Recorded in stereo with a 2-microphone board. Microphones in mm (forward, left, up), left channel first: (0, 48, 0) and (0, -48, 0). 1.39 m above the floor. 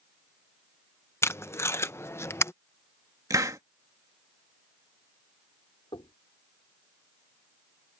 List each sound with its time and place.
1.2 s tape being pulled: 25° left (ahead or behind)
3.3 s a hiss: 35° right (ahead or behind)
5.9 s knocking: 65° left (ahead or behind)